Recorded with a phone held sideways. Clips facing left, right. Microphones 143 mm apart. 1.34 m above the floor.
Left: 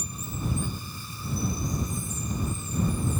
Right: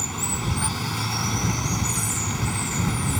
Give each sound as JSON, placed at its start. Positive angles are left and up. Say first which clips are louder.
{"t": 0.0, "sound": "running water", "louder": "right 5 dB", "side_deg": -70}